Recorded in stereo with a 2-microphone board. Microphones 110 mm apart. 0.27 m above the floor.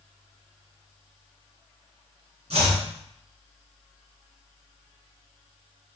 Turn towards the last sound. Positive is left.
turn(degrees=-70)  # may be behind; listen again after turning